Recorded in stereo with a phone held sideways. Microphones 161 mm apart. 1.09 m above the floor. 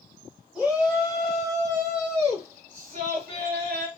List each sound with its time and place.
0.6 s a shout: centre (ahead or behind), 1.6 m; by 3.9 s 70° right (ahead or behind), 1.4 m